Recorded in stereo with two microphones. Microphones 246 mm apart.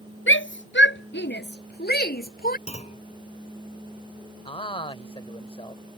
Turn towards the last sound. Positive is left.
turn(degrees=20)  # may be behind; listen again after turning